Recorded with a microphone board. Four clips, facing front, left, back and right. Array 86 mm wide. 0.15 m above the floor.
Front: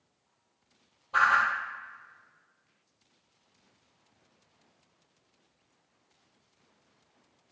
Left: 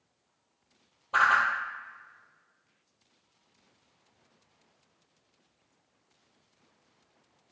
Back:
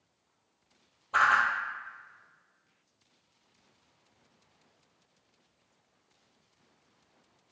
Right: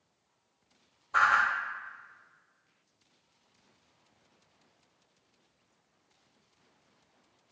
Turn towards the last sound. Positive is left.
turn(degrees=105)